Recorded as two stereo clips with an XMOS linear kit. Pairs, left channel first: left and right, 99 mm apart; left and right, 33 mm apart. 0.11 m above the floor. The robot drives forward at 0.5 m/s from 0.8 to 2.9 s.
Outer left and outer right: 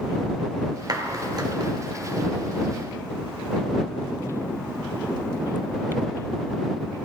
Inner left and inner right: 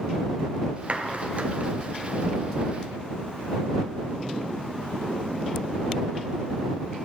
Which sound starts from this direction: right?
A clap, at 0.9 s.